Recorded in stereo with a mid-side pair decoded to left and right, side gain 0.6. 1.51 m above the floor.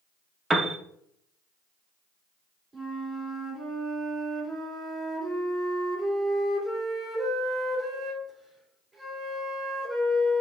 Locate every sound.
0.5 s a piano: 20° right, 0.7 m
2.7 s a flute: 15° right, 2.5 m